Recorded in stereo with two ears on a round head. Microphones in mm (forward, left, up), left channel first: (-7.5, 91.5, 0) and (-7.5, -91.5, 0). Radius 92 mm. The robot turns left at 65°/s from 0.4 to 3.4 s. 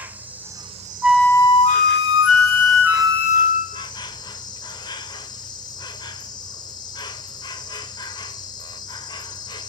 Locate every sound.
0.0 s an insect: 10° right, 1.2 m; by 9.7 s 155° left, 1.2 m
1.0 s a flute: 175° right, 0.7 m; by 3.9 s 30° left, 0.7 m